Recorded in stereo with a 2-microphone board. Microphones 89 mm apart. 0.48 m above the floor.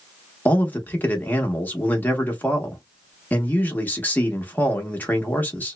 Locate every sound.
0.5 s a man speaking: 20° left (ahead or behind), 0.8 m